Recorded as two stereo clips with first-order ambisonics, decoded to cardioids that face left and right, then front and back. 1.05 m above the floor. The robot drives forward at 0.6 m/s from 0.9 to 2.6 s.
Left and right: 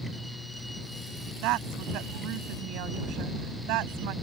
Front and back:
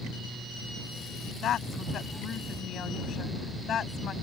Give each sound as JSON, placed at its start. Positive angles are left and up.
{"t": 1.4, "sound": "a woman speaking", "azimuth_deg": -55}